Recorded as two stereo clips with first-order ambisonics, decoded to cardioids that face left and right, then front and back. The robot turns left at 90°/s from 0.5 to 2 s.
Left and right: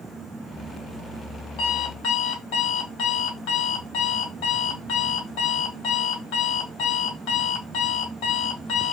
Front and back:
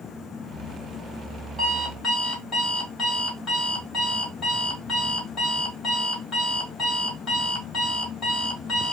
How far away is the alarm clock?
About 1.9 m.